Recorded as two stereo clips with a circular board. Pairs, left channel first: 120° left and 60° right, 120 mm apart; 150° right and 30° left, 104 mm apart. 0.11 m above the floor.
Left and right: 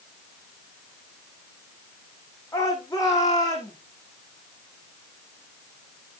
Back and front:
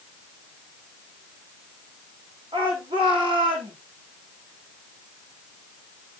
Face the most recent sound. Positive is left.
turn(degrees=65)